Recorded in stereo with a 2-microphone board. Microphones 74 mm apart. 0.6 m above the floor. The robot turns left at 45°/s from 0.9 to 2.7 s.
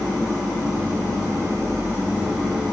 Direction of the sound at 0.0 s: 105° right.